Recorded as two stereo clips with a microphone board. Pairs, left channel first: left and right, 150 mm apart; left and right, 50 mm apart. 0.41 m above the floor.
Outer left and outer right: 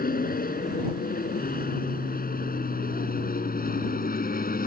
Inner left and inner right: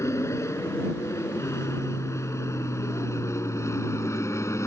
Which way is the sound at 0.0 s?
75° left (ahead or behind).